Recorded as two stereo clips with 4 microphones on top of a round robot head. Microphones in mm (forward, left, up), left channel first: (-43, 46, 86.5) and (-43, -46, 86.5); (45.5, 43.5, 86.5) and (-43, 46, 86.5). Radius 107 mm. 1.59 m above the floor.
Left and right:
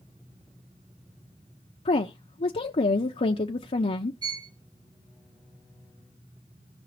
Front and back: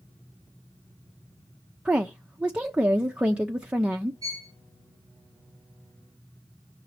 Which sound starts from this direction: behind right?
A violin, at 4.2 s.